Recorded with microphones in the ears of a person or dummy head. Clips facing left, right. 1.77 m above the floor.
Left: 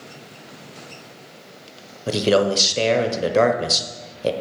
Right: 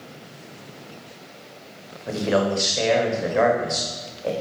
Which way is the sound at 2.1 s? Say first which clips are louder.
Left 4 dB; 45° left (ahead or behind).